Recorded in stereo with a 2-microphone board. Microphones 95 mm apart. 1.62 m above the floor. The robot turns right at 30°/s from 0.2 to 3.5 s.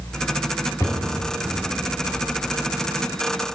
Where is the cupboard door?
35° left (ahead or behind), 1.4 m.